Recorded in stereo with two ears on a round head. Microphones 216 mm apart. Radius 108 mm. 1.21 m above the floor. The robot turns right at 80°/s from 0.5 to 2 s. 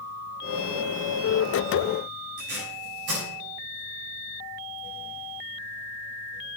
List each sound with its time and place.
2.4 s tape being pulled: 45° right (ahead or behind), 7 m